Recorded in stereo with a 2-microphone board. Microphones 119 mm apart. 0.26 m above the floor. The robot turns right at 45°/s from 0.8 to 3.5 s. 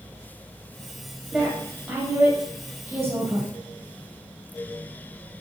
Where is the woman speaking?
5° right (ahead or behind), 1.0 m; by 3.5 s 20° right (ahead or behind), 1.0 m.